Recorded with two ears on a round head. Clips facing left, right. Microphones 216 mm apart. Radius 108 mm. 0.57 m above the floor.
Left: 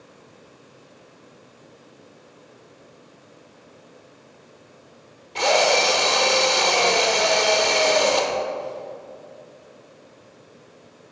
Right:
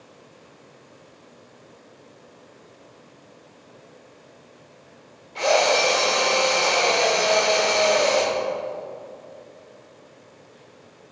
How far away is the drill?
About 1.3 m.